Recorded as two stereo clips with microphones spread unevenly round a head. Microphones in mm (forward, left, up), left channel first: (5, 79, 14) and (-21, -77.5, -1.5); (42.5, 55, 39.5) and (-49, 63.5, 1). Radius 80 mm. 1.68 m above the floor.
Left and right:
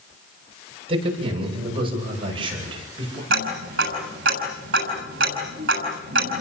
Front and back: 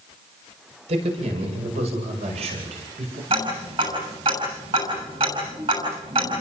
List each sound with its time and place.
0.9 s a man speaking: 155° right, 8.5 m; by 3.2 s 160° right, 10 m
3.3 s ticking: 130° right, 7 m